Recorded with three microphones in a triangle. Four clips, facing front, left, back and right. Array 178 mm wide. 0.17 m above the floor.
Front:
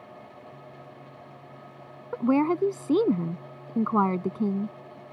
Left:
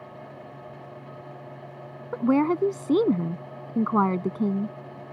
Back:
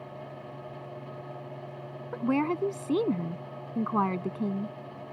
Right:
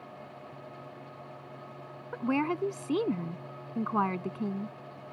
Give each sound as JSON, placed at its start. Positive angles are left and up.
{"t": 2.1, "sound": "a woman speaking", "azimuth_deg": 55}